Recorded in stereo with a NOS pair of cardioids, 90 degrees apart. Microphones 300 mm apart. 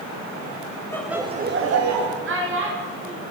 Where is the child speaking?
40° right, 2.5 m.